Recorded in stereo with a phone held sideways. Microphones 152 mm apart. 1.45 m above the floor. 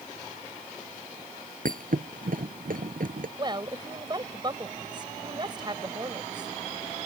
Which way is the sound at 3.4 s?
30° right (ahead or behind).